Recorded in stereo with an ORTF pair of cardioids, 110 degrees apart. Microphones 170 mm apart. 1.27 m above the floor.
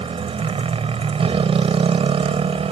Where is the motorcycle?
35° right.